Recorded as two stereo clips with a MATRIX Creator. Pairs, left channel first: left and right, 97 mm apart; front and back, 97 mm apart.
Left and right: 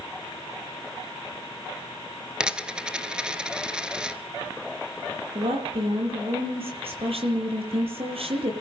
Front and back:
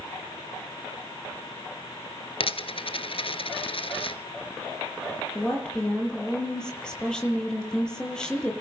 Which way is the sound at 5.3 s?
80° right.